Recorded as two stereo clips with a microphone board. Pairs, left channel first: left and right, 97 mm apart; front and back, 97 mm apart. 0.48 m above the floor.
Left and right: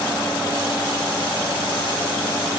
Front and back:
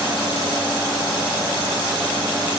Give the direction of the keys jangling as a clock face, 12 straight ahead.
I don't hear keys jangling.